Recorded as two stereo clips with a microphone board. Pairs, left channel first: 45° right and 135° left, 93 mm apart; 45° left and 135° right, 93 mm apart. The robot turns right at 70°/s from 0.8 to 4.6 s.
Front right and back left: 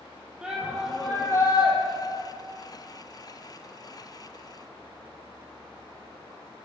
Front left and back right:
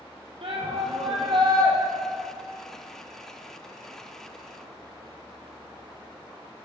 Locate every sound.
0.4 s a shout: 145° right, 4.5 m; by 1.8 s 75° right, 4.5 m